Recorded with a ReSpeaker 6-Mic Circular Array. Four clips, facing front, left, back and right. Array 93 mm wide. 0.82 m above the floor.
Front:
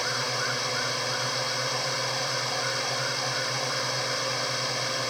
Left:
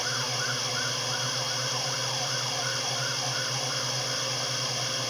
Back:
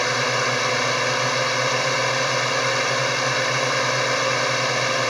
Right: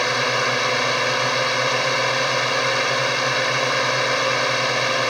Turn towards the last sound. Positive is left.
turn(degrees=-125)